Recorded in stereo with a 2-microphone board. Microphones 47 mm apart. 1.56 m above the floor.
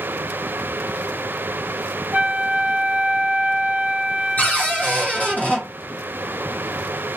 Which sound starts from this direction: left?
A cupboard door, at 4.4 s.